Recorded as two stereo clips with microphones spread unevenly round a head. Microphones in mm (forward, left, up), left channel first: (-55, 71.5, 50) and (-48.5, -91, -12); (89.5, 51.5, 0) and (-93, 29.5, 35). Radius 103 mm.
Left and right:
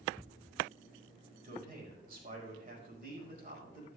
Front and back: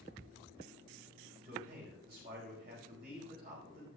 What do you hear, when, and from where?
1.4 s a man speaking: 120° right, 5 m